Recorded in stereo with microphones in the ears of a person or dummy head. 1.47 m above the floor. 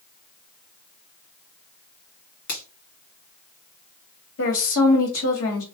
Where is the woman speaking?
75° left (ahead or behind), 1.9 m.